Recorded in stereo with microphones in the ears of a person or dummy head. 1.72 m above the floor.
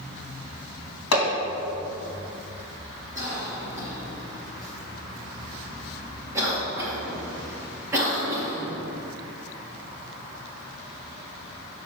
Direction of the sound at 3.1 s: 15° right (ahead or behind).